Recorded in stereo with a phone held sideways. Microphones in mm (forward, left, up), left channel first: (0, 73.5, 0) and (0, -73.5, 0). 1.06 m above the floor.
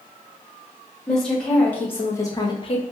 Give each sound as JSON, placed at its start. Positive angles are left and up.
{"t": 1.1, "sound": "a woman speaking", "side_deg": 5, "distance_m": 1.6}